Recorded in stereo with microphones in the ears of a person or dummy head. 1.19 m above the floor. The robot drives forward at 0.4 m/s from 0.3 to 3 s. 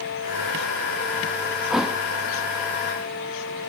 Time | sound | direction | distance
1.7 | a thud | 5° right (ahead or behind) | 0.6 m